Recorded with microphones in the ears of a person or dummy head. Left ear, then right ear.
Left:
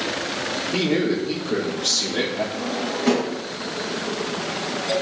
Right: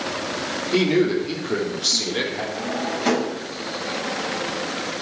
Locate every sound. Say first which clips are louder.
0.7 s a man speaking: right 4 dB; 80° right, 3 m; by 2.4 s 75° right (ahead or behind), 4.5 m
2.5 s a drawer: even; 85° right, 7.5 m